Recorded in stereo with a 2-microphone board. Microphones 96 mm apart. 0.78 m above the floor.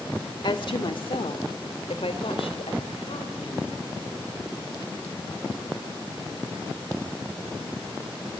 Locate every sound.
0.4 s a woman speaking: 55° left (ahead or behind), 2 m; by 3.7 s 75° left (ahead or behind), 5.5 m